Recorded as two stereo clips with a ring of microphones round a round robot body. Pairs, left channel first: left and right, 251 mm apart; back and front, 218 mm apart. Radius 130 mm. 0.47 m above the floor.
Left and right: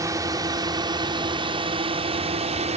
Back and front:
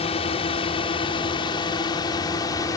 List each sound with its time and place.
0.0 s a drone: 155° right; by 2.8 s 120° right